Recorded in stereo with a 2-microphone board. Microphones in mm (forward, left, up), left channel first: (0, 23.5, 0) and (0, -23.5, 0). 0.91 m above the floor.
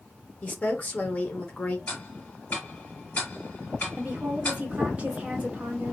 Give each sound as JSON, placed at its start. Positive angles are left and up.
{"t": 0.4, "sound": "a woman speaking", "side_deg": 30, "distance_m": 0.6}
{"t": 1.9, "sound": "ticking", "side_deg": 35, "distance_m": 1.6}
{"t": 4.0, "sound": "a woman speaking", "side_deg": -30, "distance_m": 1.2}